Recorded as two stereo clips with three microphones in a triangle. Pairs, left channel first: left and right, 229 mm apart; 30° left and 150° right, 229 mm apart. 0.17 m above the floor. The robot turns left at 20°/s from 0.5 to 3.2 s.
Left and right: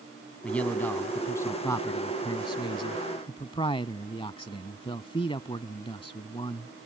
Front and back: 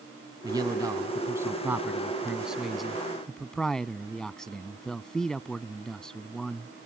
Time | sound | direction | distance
0.4 | a man speaking | 170° left | ?